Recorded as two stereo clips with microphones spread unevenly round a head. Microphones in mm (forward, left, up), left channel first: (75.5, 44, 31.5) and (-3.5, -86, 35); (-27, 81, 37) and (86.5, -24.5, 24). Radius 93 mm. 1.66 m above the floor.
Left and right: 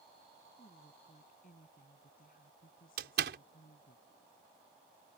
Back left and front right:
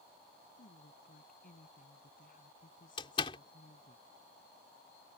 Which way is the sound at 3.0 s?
160° right.